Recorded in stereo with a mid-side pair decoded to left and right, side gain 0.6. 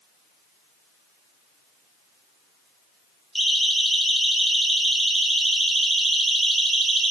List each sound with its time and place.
3.4 s a siren: 5° right, 7.5 m; by 7.1 s 25° right, 6 m